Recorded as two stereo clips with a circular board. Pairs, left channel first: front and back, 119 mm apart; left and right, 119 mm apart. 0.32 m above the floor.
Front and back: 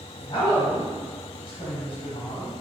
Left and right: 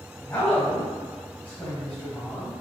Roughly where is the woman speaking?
Ahead.